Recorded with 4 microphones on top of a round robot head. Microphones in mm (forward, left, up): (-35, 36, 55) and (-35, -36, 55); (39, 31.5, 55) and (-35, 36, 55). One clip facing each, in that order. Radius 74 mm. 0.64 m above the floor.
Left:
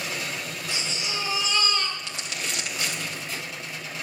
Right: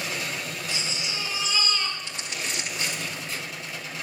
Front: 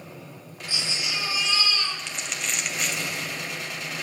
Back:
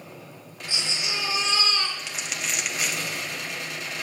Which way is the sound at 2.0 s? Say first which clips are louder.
Even, even; 90° left.